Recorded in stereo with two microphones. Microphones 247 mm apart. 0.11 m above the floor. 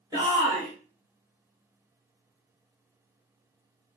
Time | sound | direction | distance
0.1 | a shout | 15° right (ahead or behind) | 1.5 m